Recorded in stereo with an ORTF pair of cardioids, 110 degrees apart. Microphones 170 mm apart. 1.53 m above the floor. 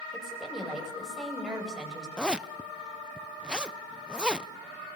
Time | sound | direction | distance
0.1 | a woman speaking | 5° right | 9.5 m
2.2 | a zipper | 5° right | 0.7 m